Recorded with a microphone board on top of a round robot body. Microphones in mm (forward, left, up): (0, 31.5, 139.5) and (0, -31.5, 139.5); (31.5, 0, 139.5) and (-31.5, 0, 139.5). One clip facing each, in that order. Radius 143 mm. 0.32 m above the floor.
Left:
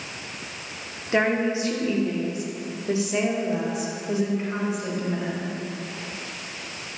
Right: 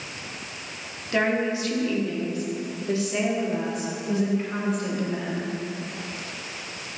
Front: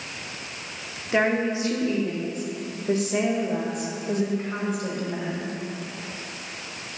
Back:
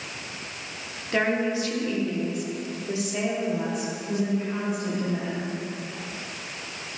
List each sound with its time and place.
1.1 s a woman speaking: 60° left, 1.4 m; by 5.5 s 15° left, 3 m